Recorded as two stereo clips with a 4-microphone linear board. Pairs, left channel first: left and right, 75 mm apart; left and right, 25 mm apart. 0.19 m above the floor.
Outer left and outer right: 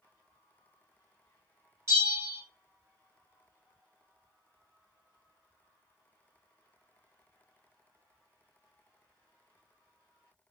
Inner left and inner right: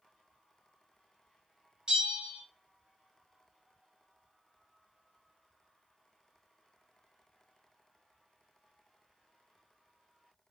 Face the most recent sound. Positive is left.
turn(degrees=-35)  # may be behind; listen again after turning